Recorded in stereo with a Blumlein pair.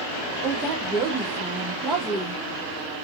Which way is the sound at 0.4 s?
15° right.